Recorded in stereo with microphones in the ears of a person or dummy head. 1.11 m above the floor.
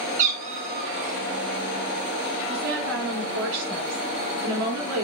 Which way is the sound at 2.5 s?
75° right (ahead or behind).